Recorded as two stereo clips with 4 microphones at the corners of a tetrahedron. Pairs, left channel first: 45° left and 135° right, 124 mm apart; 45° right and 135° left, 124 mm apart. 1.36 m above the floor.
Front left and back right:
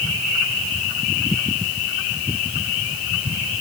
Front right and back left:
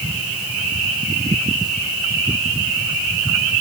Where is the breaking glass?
I don't hear breaking glass.